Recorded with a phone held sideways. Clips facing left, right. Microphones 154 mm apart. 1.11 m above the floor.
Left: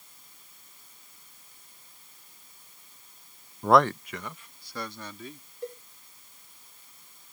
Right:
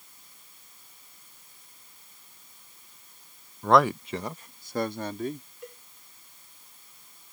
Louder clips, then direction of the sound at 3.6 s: Even; 20° left (ahead or behind).